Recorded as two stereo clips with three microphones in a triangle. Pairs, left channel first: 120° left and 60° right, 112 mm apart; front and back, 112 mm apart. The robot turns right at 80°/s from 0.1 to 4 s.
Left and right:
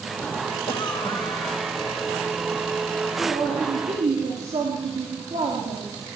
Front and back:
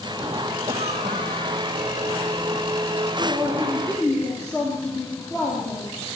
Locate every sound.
0.7 s a cough: 155° left, 5.5 m; by 2.0 s 95° right, 5.5 m
3.2 s a man speaking: 120° right, 7 m; by 5.9 s 55° right, 7 m